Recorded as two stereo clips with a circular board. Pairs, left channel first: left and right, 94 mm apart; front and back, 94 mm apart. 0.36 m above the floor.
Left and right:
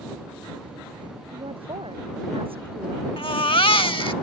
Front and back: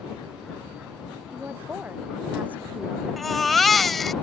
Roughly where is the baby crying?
Left.